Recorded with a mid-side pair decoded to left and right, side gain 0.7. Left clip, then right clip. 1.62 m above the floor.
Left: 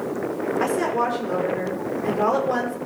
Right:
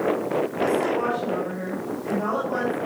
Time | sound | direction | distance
0.6 | a woman speaking | 65° left | 5.5 m